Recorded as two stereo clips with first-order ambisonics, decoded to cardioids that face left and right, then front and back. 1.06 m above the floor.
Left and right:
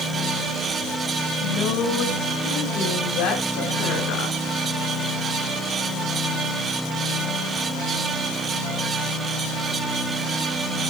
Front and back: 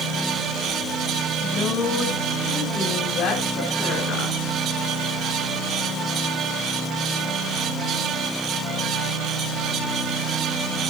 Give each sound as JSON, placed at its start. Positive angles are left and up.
{"t": 1.4, "sound": "a woman speaking", "azimuth_deg": 55, "distance_m": 1.9}